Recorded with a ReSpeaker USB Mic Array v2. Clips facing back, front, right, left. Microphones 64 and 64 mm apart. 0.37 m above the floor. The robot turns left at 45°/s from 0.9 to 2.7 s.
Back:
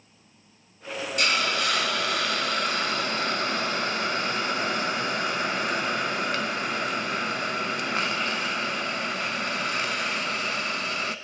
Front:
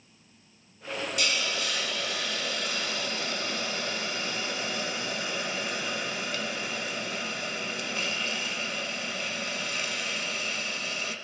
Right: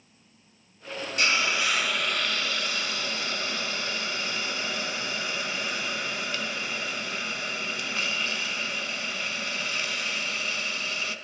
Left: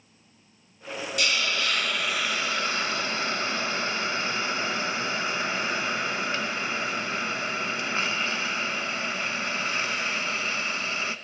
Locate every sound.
1.2 s a hiss: 145° right, 0.6 m; by 11.2 s 150° left, 0.6 m